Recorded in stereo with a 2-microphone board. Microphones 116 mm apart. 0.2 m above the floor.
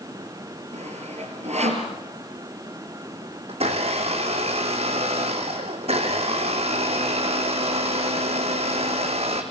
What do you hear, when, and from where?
0.7 s sawing: 70° right (ahead or behind), 3.5 m
3.5 s a blender: 60° right (ahead or behind), 2.5 m